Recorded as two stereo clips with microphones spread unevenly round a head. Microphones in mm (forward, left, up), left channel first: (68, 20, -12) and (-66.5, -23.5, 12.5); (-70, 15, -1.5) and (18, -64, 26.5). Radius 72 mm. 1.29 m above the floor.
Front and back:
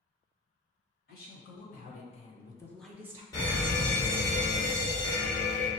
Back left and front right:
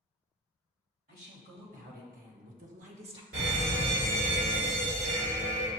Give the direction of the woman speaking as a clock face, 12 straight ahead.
12 o'clock.